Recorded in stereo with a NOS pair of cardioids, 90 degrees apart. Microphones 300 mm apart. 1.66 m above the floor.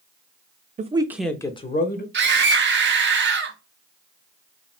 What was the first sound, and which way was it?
A man speaking, 25° right.